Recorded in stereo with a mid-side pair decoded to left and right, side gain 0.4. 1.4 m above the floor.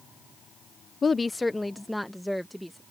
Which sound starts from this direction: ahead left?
A woman speaking, at 1.0 s.